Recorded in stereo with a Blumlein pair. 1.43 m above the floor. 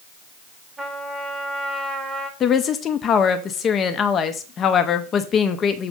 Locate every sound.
0.8 s a trumpet: 10° right, 1.2 m
2.4 s a woman speaking: 25° left, 0.9 m